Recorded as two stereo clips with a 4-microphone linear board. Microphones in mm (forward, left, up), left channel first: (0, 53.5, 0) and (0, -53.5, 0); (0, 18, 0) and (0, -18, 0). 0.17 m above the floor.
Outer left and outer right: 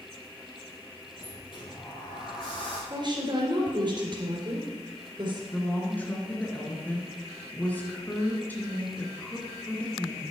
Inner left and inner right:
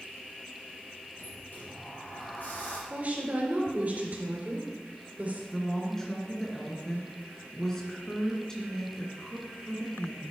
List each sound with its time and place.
1.2 s a sliding door: 50° left (ahead or behind), 6 m
2.9 s a woman speaking: 45° right (ahead or behind), 3.5 m
5.5 s a woman speaking: 15° left (ahead or behind), 2.5 m